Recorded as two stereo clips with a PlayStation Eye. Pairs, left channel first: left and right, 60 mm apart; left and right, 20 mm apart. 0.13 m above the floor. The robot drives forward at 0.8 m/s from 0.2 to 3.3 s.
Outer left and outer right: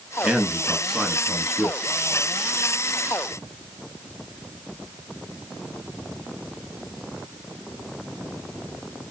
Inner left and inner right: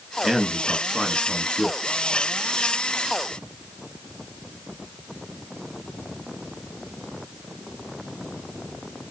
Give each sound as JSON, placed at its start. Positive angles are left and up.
{"t": 0.2, "sound": "a man speaking", "side_deg": -10, "distance_m": 1.1}